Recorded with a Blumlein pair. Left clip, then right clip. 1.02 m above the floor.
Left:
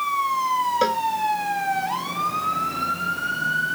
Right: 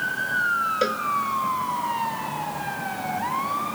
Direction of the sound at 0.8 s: Straight ahead.